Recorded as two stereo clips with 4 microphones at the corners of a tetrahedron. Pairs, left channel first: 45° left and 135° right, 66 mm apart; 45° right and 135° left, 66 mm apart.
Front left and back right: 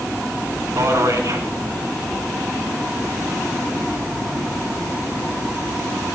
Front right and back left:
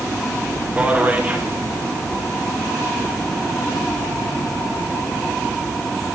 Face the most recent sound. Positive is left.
turn(degrees=-160)